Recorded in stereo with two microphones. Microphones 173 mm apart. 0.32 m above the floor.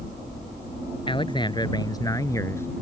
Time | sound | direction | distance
1.1 | a man speaking | 30° left (ahead or behind) | ?